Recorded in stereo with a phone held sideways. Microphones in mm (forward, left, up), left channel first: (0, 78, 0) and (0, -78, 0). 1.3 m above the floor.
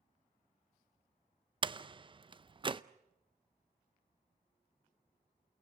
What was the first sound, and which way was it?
A door slam, 35° right (ahead or behind).